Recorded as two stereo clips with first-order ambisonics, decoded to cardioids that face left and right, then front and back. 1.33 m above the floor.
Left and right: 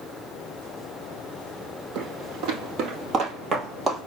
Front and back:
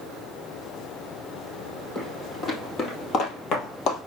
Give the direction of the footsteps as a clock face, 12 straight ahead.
2 o'clock.